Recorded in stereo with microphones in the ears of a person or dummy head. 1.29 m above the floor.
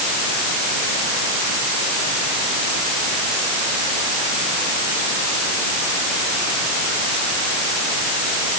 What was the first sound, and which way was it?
Only background noise.